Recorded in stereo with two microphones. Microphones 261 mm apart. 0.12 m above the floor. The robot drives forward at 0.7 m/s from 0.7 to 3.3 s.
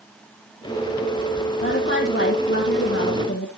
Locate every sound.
1.6 s a woman speaking: 45° left (ahead or behind), 4.5 m; by 3.5 s 55° left (ahead or behind), 3.5 m